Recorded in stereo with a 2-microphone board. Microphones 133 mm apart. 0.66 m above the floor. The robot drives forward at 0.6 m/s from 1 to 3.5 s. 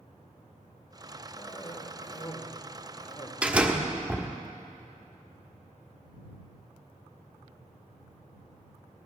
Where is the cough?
35° left (ahead or behind), 3 m; by 3.3 s 45° left (ahead or behind), 2.5 m.